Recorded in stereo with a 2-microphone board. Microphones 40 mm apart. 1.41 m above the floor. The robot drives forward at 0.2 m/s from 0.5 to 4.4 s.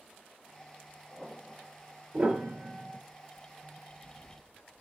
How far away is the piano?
About 1.9 m.